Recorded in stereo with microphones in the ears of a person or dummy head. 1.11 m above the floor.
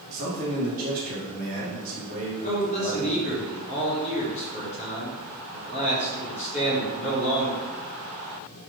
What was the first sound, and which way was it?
A man speaking, 40° right (ahead or behind).